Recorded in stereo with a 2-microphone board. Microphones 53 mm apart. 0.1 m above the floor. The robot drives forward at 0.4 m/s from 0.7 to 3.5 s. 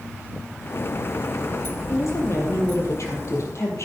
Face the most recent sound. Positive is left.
turn(degrees=65)  # may be behind; listen again after turning